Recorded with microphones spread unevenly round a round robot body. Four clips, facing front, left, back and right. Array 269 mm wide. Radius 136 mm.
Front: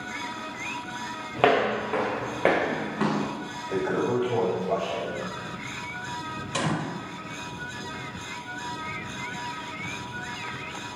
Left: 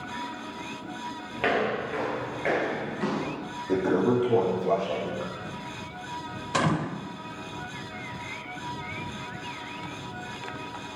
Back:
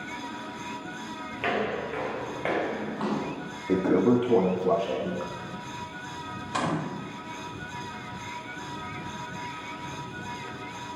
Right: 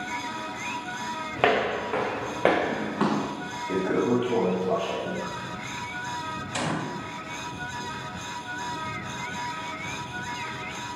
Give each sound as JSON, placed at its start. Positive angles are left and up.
{"t": 1.4, "sound": "footsteps", "azimuth_deg": -30, "distance_m": 4.0}
{"t": 3.7, "sound": "a toilet flushing", "azimuth_deg": 170, "distance_m": 3.0}
{"t": 6.5, "sound": "a gunshot", "azimuth_deg": 80, "distance_m": 1.2}